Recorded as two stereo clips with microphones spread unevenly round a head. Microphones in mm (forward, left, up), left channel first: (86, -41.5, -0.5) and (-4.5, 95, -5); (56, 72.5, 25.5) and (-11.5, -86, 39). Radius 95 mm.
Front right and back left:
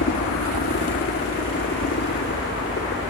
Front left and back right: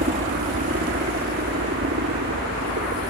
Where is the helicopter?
70° right; by 3.1 s 95° right.